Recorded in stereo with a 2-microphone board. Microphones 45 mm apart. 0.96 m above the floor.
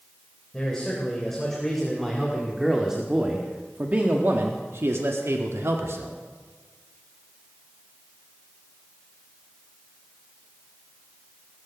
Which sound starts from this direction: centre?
A man speaking, at 0.5 s.